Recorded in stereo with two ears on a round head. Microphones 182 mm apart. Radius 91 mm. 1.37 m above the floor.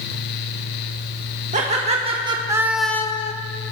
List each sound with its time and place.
1.5 s laughter: 35° right (ahead or behind), 2.5 m; by 3.3 s 35° left (ahead or behind), 1.0 m